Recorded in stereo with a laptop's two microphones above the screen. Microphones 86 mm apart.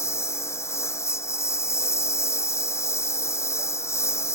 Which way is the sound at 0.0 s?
30° left (ahead or behind).